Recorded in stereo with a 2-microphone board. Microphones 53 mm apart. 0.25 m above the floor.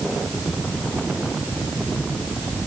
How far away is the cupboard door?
I don't hear a cupboard door.